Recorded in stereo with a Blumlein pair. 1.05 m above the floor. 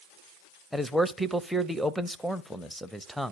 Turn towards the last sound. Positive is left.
turn(degrees=0)